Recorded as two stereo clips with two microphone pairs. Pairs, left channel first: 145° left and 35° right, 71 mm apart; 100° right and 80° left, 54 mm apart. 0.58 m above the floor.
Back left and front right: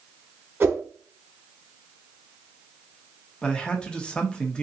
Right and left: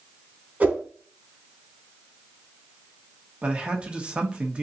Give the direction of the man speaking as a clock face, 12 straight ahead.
9 o'clock.